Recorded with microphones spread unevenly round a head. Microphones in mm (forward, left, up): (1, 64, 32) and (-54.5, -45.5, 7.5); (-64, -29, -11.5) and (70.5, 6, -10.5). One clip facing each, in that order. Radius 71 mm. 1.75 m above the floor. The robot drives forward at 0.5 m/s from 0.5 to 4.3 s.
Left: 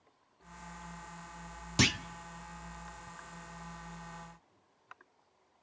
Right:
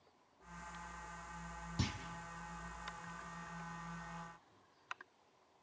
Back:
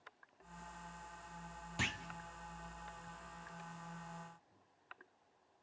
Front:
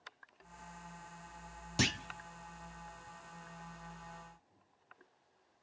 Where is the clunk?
60° left, 0.5 m; by 2.0 s 70° left, 0.5 m.